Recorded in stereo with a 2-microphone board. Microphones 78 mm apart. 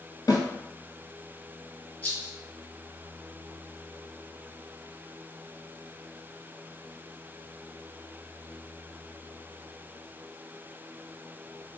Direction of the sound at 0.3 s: 50° left (ahead or behind).